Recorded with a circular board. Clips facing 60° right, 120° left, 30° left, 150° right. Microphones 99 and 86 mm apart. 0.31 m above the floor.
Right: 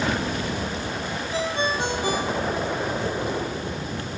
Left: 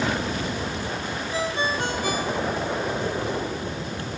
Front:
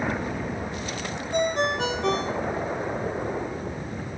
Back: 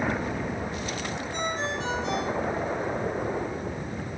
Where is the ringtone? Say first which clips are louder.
Right 1 dB, front 8 dB; 10° left, 3.5 m.